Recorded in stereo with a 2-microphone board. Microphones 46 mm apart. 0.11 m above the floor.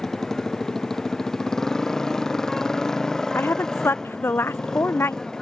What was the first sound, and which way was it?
A motorcycle, 10° left (ahead or behind).